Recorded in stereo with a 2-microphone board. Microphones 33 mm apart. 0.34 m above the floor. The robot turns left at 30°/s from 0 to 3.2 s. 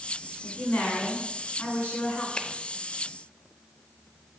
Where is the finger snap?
25° left (ahead or behind), 0.7 m; by 2.5 s 30° left (ahead or behind), 0.7 m.